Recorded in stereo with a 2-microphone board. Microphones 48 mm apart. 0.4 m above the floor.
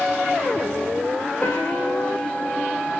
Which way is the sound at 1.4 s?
35° left (ahead or behind).